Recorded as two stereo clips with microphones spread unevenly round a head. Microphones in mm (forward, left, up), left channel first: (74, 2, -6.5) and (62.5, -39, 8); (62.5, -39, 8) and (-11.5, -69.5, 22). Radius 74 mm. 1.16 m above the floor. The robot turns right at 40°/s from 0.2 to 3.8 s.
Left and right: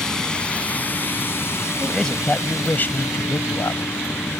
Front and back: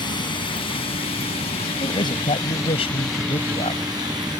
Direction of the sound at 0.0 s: Straight ahead.